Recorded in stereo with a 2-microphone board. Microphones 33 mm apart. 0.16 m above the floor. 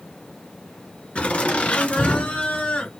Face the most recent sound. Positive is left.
turn(degrees=45)  # may be behind; listen again after turning